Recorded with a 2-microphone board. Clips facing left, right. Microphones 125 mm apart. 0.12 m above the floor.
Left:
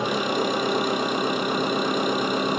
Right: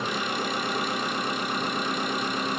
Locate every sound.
0.0 s an engine running: 65° left (ahead or behind), 0.9 m